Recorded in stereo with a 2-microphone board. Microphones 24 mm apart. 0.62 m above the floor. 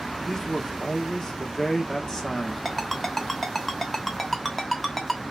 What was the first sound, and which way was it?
A man speaking, 30° left (ahead or behind).